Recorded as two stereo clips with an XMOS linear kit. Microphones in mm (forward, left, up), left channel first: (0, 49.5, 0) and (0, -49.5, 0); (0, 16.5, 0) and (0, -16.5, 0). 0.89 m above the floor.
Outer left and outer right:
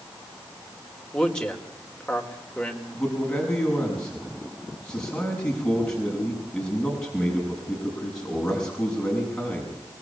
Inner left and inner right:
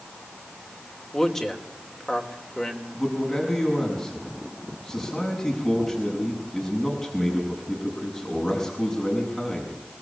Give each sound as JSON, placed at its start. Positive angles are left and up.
{"t": 1.1, "sound": "a man speaking", "side_deg": 5, "distance_m": 3.5}
{"t": 2.9, "sound": "a man speaking", "side_deg": 10, "distance_m": 6.5}